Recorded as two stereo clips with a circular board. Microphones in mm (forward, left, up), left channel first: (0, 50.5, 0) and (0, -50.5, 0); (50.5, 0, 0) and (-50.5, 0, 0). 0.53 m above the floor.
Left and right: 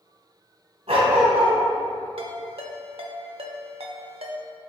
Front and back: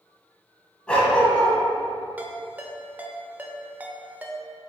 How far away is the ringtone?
About 0.7 m.